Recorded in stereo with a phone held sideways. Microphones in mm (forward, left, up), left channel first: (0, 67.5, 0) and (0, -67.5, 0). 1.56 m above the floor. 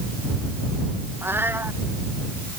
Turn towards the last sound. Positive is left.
turn(degrees=-15)  # may be behind; listen again after turning